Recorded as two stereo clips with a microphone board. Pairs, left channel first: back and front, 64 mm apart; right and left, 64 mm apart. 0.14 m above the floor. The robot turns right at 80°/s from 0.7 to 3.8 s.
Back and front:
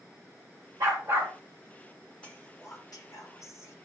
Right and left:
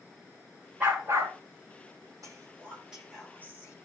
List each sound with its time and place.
0.8 s a dog barking: 20° left, 5 m; by 1.3 s 65° left, 5 m
2.2 s whispering: 110° left, 7 m; by 3.8 s 130° right, 7 m